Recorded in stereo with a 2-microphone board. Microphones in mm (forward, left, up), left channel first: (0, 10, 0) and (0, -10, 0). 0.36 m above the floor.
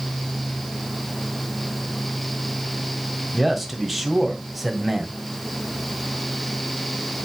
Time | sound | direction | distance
3.3 | a man speaking | 5° right (ahead or behind) | 1.7 m